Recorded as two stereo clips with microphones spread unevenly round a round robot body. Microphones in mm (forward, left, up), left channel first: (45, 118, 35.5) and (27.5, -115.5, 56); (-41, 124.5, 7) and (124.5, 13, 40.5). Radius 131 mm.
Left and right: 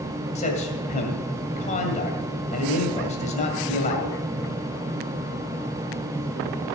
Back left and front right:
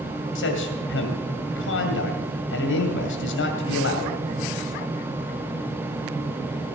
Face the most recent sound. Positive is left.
turn(degrees=145)